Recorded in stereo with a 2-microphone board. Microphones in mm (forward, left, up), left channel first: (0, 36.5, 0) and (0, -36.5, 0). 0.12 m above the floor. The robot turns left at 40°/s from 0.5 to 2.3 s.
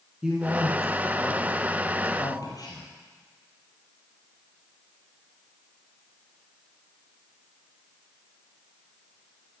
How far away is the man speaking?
About 2.5 m.